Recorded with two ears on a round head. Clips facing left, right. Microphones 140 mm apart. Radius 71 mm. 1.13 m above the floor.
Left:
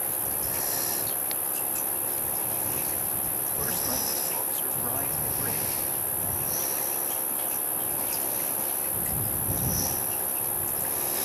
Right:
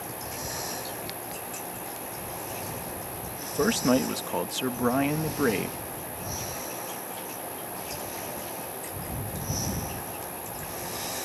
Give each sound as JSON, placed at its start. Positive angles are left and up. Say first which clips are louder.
{"t": 0.0, "sound": "an insect", "louder": "even", "side_deg": 50}
{"t": 3.4, "sound": "a man speaking", "louder": "right 14 dB", "side_deg": -80}